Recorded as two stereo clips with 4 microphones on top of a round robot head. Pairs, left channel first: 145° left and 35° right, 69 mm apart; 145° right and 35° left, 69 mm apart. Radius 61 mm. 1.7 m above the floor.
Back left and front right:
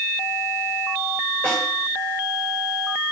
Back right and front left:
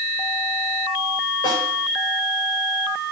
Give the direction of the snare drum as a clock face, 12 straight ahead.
5 o'clock.